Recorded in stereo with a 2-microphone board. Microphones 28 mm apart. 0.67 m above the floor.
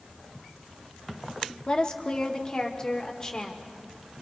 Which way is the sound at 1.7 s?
35° left (ahead or behind).